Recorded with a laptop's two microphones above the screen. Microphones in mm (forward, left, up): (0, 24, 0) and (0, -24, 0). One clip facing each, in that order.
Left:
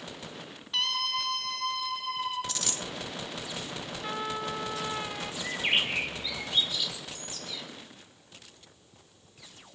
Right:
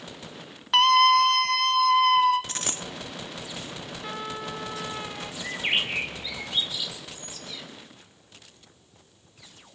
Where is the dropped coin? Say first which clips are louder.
Right 2 dB; 35° right (ahead or behind), 0.6 m.